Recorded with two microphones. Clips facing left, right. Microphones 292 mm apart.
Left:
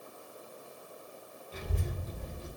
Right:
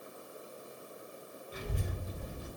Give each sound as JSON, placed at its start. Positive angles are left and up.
{"t": 1.5, "sound": "a child speaking", "side_deg": -20, "distance_m": 1.6}